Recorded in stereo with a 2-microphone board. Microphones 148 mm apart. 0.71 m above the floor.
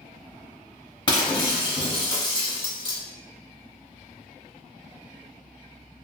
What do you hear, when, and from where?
1.1 s breaking glass: 30° left (ahead or behind), 0.8 m